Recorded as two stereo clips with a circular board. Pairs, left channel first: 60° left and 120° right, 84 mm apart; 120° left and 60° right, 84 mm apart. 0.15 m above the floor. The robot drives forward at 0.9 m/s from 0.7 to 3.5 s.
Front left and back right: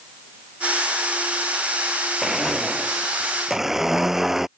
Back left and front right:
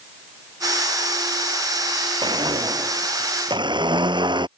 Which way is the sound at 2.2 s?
30° right.